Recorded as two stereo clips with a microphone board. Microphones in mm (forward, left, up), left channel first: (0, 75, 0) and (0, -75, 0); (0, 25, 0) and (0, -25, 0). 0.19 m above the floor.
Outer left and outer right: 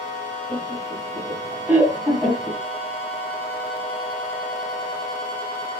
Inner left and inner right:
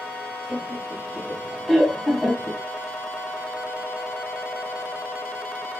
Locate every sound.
0.5 s laughter: 30° right (ahead or behind), 1.7 m; by 2.6 s 5° left (ahead or behind), 1.7 m